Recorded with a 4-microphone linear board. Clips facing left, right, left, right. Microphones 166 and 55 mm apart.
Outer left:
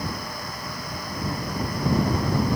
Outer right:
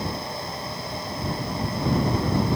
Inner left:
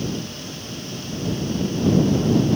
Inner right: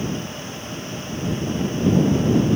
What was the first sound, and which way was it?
Only background noise.